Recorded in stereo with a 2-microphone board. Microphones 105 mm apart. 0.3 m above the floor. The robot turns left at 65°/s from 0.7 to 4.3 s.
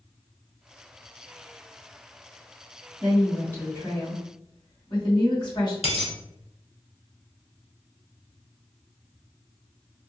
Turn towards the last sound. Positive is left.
turn(degrees=80)